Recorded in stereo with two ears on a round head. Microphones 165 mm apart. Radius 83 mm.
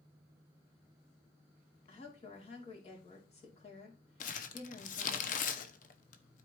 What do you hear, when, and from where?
1.9 s a woman speaking: 35° left (ahead or behind), 3 m
4.2 s crumpling: 45° left (ahead or behind), 0.8 m